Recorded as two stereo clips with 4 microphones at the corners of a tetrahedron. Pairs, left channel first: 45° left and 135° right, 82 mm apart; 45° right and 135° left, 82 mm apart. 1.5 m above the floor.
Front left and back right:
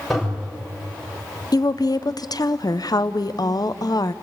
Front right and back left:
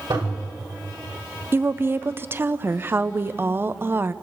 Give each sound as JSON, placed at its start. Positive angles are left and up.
{"t": 0.1, "sound": "a toilet flushing", "azimuth_deg": 130, "distance_m": 7.5}
{"t": 1.5, "sound": "a woman speaking", "azimuth_deg": 75, "distance_m": 0.6}